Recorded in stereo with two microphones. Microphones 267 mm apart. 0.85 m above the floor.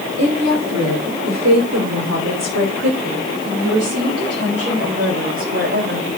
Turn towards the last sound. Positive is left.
turn(degrees=-50)  # may be behind; listen again after turning